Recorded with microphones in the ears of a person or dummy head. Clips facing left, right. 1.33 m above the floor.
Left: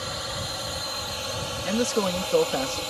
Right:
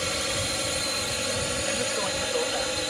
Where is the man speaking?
55° left (ahead or behind).